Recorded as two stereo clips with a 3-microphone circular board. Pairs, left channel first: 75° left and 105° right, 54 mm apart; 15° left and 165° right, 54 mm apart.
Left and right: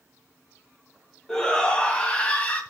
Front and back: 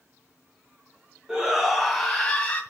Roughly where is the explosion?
I don't hear an explosion.